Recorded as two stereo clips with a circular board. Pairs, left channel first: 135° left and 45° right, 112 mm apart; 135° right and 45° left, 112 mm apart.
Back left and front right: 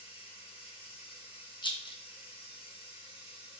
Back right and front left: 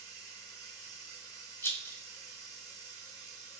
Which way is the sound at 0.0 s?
165° left.